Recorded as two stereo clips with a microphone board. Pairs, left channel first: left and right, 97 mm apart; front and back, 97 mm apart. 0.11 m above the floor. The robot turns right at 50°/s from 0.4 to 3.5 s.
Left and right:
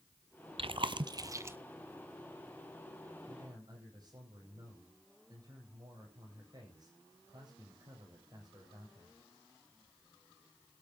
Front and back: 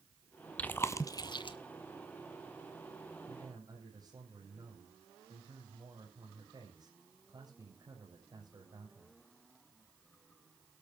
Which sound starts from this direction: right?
Chewing, at 0.6 s.